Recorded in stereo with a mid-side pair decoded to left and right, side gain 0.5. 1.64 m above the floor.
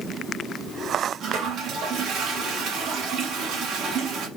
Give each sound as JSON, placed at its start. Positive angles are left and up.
{"t": 1.2, "sound": "a toilet flushing", "azimuth_deg": -65, "distance_m": 1.3}